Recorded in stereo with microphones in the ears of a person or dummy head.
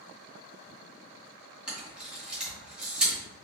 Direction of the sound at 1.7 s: 10° right (ahead or behind).